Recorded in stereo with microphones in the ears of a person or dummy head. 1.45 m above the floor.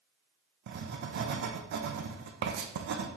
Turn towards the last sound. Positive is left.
turn(degrees=-50)  # may be behind; listen again after turning